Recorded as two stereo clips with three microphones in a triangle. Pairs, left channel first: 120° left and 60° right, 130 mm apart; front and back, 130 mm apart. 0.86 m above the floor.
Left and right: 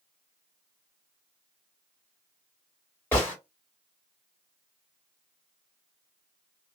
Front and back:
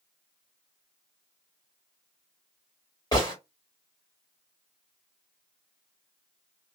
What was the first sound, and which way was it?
A gunshot, 50° left.